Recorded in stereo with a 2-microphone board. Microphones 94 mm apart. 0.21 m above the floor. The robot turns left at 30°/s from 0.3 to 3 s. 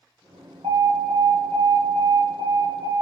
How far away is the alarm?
About 2.5 m.